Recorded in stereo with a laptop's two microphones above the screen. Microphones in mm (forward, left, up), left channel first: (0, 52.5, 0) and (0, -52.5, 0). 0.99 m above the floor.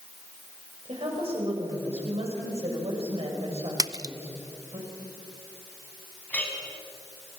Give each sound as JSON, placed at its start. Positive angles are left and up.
{"t": 0.8, "sound": "a woman speaking", "side_deg": -65, "distance_m": 6.0}
{"t": 3.8, "sound": "a splash", "side_deg": -35, "distance_m": 0.5}
{"t": 6.3, "sound": "a clink", "side_deg": 15, "distance_m": 5.0}